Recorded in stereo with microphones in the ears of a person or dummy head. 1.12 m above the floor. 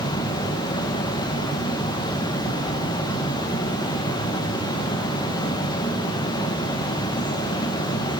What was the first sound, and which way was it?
A fan, 25° left (ahead or behind).